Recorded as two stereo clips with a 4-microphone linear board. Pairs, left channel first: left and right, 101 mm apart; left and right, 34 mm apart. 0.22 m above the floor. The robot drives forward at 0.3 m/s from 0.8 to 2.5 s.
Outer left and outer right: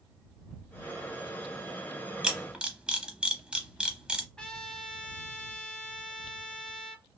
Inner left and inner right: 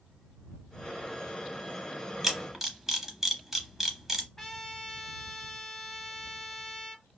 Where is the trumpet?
10° left (ahead or behind), 0.6 m.